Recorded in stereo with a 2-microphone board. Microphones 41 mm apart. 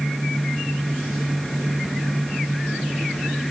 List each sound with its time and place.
Only background noise.